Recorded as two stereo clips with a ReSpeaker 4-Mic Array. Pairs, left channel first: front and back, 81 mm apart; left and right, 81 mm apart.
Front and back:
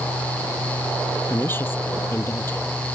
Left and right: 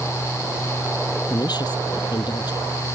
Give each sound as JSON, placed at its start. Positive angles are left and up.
{"t": 1.3, "sound": "a woman speaking", "azimuth_deg": 60}